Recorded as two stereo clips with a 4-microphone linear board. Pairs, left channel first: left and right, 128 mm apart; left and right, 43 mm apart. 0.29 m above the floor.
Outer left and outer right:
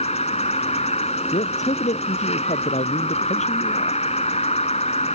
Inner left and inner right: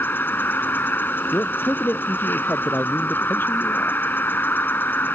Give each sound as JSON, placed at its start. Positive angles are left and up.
{"t": 0.0, "sound": "an insect", "side_deg": 55}
{"t": 1.3, "sound": "a man speaking", "side_deg": 60}